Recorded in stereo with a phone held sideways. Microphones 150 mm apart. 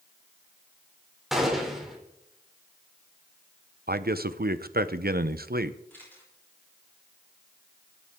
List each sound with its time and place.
1.3 s a gunshot: centre (ahead or behind), 3.5 m
3.9 s a man speaking: 85° right, 0.9 m
5.9 s a camera shutter: 10° left (ahead or behind), 9.5 m